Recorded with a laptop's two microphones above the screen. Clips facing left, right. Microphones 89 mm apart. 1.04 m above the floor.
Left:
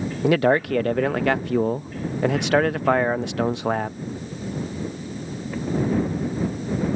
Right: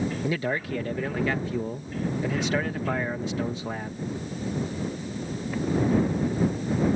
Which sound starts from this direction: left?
A man speaking, at 0.2 s.